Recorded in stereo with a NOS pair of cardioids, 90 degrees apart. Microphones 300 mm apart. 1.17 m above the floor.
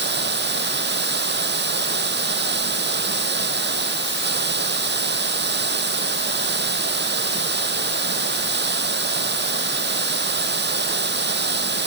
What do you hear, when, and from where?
0.0 s running water: 35° right